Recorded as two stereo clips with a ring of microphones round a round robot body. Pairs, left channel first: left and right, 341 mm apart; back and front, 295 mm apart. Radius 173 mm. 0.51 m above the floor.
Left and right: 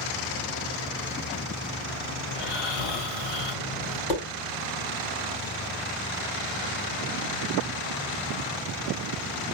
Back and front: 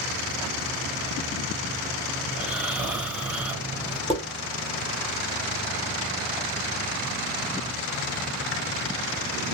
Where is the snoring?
85° left, 1.6 m.